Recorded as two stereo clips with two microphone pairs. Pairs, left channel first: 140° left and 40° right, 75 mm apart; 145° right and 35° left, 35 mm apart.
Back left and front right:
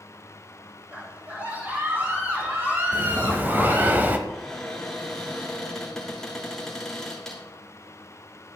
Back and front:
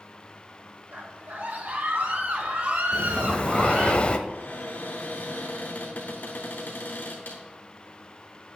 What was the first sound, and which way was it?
A scream, 25° left.